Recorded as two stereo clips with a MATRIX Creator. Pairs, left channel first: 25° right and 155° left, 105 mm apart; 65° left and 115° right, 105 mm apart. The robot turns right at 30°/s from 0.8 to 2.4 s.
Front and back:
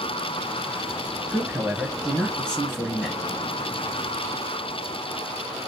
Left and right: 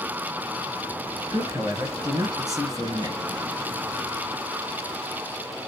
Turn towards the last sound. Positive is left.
turn(degrees=-100)